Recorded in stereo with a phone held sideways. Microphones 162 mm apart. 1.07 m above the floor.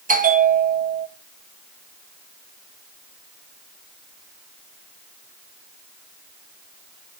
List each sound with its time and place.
0.1 s a bell: 55° right (ahead or behind), 1.1 m